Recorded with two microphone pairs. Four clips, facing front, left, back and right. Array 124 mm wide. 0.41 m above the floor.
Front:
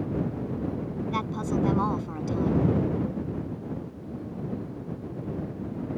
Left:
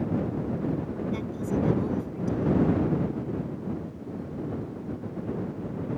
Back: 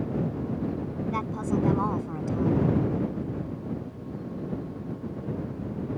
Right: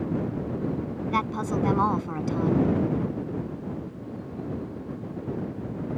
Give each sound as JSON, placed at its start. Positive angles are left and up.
{"t": 1.1, "sound": "a woman speaking", "azimuth_deg": -85}